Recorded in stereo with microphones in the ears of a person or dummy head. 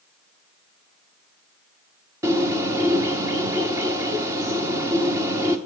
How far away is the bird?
About 1.1 m.